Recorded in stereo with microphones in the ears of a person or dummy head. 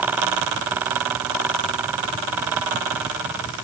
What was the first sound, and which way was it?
Only background noise.